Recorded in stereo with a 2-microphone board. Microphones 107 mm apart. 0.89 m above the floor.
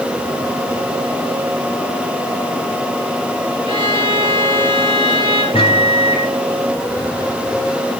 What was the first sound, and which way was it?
A violin, 55° right (ahead or behind).